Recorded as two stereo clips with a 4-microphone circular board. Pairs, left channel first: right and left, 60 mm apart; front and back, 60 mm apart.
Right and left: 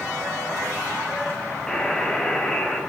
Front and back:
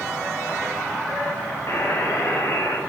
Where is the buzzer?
20° right, 2.5 m.